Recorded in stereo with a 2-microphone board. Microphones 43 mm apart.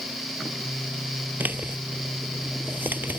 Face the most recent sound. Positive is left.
turn(degrees=-45)  # may be behind; listen again after turning